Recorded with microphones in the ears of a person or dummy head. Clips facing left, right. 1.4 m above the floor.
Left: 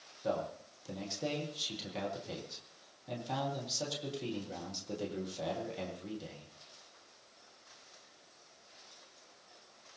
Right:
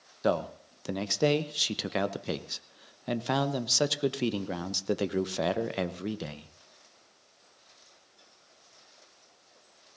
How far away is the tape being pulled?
No tape being pulled in this recording.